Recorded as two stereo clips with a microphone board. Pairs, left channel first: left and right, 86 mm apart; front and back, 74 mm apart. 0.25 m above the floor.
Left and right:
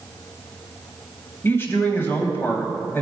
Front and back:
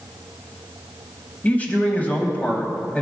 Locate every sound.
1.4 s a man speaking: 50° left, 1.2 m